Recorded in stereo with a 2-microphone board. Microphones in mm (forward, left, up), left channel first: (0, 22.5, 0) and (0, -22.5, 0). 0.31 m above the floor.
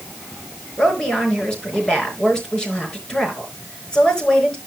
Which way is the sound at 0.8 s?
15° left (ahead or behind).